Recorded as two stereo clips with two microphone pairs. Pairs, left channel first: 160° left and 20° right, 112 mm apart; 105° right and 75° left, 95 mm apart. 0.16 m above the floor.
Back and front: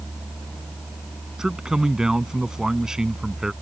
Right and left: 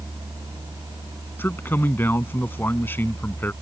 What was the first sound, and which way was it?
A man speaking, 95° right.